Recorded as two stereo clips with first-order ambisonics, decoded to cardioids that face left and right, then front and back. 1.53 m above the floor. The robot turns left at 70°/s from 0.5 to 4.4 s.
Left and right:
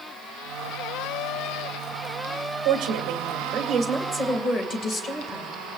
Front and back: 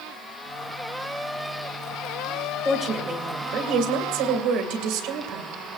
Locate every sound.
2.6 s a woman speaking: 90° right, 2.0 m; by 5.5 s 150° left, 2.0 m